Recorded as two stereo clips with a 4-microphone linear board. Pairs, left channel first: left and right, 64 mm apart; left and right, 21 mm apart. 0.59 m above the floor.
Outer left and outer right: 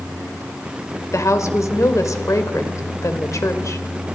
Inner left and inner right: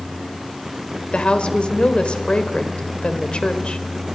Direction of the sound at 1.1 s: 55° left (ahead or behind).